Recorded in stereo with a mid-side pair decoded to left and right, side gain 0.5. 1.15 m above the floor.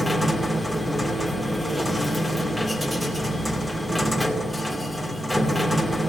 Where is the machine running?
5° left, 2.5 m.